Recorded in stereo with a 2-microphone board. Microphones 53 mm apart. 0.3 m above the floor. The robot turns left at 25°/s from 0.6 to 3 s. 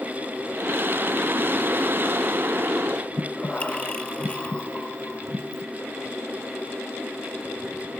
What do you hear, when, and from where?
3.2 s breathing: 25° left (ahead or behind), 0.7 m